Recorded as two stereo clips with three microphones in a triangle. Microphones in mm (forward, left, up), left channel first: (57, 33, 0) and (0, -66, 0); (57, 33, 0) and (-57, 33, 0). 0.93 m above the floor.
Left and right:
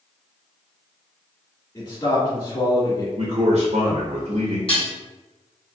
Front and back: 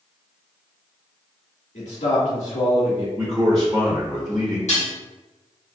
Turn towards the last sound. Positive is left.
turn(degrees=15)